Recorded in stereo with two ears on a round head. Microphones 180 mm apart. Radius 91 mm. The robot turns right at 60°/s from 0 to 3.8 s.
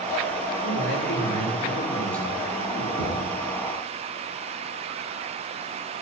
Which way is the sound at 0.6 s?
80° left.